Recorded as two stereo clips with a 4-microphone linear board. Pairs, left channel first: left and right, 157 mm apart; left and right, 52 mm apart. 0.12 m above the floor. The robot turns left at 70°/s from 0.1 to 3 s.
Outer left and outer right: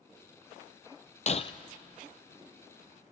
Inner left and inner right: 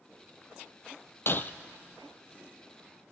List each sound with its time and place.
1.3 s breaking glass: 50° left (ahead or behind), 0.7 m; by 1.5 s 35° left (ahead or behind), 0.7 m